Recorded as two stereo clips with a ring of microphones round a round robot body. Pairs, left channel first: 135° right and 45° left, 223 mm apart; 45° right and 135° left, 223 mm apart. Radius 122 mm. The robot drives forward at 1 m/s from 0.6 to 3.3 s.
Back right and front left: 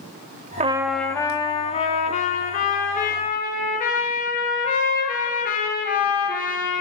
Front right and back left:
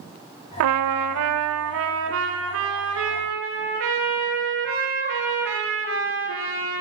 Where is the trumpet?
110° left, 0.5 m; by 6.8 s 170° left, 3 m.